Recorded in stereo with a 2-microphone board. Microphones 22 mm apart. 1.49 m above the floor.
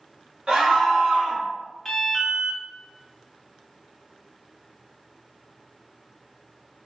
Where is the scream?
65° right (ahead or behind), 1.3 m.